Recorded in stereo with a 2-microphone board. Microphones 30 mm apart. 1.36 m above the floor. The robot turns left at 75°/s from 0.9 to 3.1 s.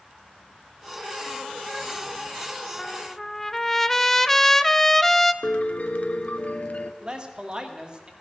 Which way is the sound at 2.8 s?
20° left (ahead or behind).